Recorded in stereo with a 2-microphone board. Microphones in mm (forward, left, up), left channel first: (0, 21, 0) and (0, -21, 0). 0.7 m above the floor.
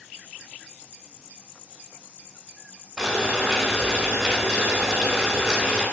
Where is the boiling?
15° right (ahead or behind), 0.6 m.